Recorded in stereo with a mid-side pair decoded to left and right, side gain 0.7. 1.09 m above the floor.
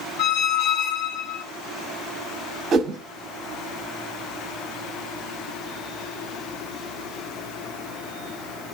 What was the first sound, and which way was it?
A squeak, 60° left.